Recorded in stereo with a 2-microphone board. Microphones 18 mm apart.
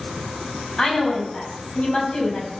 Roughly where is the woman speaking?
Left.